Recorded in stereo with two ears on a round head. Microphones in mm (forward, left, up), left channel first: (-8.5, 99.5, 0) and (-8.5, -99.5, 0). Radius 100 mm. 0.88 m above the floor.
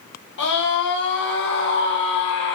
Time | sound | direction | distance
0.4 | a scream | 60° left (ahead or behind) | 5.5 m